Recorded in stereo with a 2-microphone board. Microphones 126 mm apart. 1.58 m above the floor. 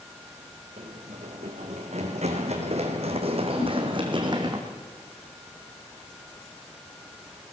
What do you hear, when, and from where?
0.8 s running footsteps: 65° right (ahead or behind), 4 m; by 4.6 s 35° right (ahead or behind), 3.5 m
3.6 s a whoosh: 45° left (ahead or behind), 9.5 m